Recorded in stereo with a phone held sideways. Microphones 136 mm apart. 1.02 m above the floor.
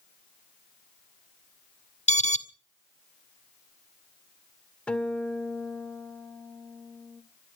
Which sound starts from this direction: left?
An alarm, at 2.1 s.